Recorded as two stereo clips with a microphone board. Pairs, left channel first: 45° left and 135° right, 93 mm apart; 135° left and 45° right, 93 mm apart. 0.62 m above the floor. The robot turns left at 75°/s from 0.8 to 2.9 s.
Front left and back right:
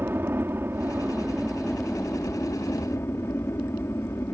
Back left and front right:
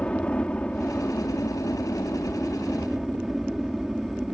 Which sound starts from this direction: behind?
A helicopter, at 0.0 s.